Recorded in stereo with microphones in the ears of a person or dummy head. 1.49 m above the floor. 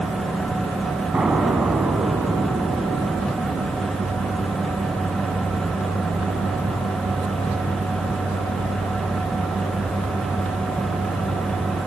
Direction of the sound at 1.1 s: 10° right (ahead or behind).